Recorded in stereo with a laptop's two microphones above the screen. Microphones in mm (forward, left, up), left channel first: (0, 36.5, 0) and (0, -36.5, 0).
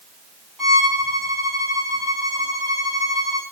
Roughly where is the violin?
Centre.